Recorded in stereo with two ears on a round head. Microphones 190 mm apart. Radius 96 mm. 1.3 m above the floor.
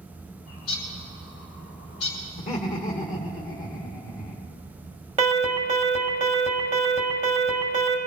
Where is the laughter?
35° left (ahead or behind), 1.7 m.